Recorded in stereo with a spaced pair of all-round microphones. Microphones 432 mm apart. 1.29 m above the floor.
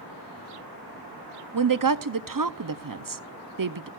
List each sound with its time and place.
1.5 s a woman speaking: 50° right (ahead or behind), 0.6 m